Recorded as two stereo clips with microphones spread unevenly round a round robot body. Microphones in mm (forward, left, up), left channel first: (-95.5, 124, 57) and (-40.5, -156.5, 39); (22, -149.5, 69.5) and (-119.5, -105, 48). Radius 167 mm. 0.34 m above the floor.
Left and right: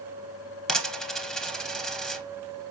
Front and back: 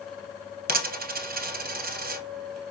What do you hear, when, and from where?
0.7 s a dropped coin: 170° right, 0.8 m